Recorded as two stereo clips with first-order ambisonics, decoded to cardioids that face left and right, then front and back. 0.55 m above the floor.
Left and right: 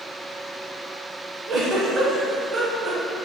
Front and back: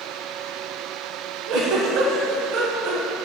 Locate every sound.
1.5 s a giggle: 155° right, 0.6 m